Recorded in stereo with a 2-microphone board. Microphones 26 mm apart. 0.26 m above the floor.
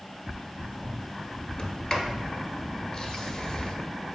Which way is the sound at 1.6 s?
20° left (ahead or behind).